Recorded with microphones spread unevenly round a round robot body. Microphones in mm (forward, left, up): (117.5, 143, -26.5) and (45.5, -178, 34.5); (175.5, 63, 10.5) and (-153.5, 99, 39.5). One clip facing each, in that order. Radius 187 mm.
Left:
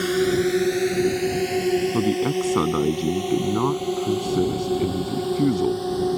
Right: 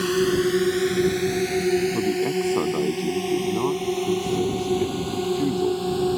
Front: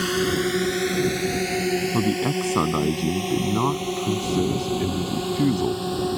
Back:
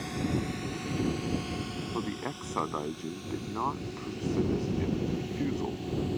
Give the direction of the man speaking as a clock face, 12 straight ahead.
11 o'clock.